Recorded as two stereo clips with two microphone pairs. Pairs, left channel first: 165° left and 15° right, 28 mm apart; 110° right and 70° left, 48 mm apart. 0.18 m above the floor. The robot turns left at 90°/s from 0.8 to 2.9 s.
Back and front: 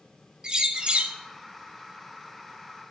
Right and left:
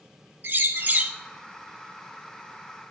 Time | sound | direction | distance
0.4 | a bird | 40° left | 0.5 m